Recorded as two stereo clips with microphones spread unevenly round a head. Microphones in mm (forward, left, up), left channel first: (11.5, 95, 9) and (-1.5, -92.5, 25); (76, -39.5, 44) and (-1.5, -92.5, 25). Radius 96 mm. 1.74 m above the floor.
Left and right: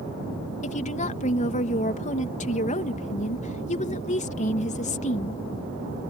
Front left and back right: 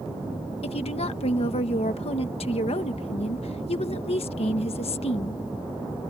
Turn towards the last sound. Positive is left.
turn(degrees=30)